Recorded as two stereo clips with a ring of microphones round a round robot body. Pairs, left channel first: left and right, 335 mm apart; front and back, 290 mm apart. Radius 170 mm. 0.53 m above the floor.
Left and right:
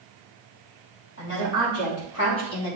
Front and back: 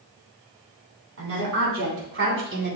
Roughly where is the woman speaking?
Behind left.